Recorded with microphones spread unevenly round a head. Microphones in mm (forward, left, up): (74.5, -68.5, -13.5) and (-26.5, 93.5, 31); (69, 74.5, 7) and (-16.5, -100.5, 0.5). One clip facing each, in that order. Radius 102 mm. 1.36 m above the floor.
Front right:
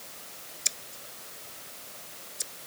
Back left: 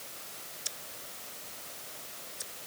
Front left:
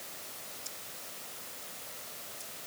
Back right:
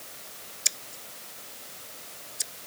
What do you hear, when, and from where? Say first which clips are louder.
0.7 s scissors: even, back right 2 dB; 125° right